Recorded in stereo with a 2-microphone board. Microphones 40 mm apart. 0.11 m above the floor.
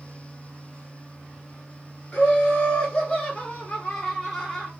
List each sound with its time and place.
2.1 s laughter: 25° left (ahead or behind), 1.5 m; by 4.7 s 5° left (ahead or behind), 1.5 m